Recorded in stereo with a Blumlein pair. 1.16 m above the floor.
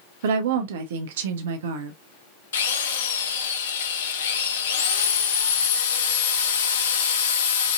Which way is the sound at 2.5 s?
60° left.